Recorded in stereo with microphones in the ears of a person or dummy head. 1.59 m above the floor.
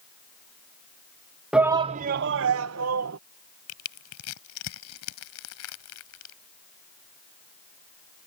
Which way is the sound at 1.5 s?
10° right (ahead or behind).